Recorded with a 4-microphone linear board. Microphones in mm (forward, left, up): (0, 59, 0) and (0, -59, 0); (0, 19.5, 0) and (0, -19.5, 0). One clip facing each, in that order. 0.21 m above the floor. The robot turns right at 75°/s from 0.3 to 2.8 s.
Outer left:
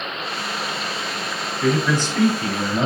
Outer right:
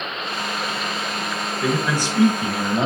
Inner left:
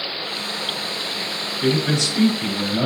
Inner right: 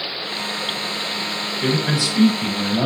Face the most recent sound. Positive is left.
turn(degrees=-20)  # may be behind; listen again after turning